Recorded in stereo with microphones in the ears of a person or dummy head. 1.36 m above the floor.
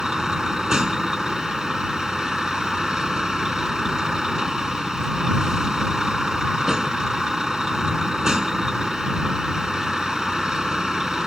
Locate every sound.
0.0 s a vehicle: centre (ahead or behind)